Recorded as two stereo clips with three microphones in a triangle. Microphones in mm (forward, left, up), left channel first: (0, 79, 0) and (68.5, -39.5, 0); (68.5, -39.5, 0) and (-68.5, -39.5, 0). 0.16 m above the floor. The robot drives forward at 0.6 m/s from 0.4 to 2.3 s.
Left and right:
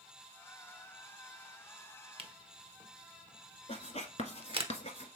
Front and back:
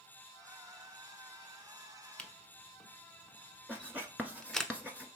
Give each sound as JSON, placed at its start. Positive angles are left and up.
{"t": 2.2, "sound": "a camera shutter", "azimuth_deg": -75, "distance_m": 0.7}
{"t": 3.7, "sound": "writing", "azimuth_deg": 100, "distance_m": 1.1}